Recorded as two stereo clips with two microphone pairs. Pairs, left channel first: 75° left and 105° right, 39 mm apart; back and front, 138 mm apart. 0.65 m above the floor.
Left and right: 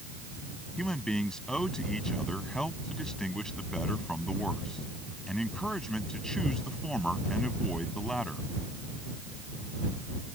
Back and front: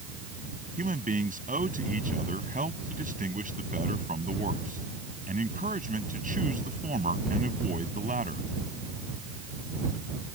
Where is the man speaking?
5° left.